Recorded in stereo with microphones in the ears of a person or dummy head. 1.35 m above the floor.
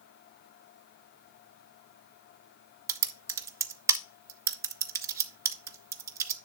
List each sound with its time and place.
2.9 s typing on a keyboard: 20° right (ahead or behind), 0.7 m